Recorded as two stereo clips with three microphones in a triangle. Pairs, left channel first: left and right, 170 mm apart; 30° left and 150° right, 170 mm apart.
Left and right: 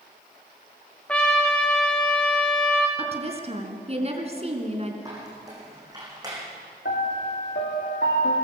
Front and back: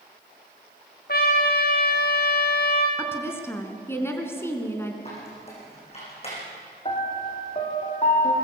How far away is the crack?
No crack in this recording.